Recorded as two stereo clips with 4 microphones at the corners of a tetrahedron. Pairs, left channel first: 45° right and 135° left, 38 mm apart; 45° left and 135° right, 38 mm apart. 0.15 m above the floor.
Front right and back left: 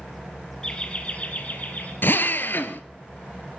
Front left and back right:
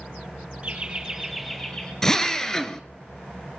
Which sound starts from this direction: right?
Laughter, at 0.6 s.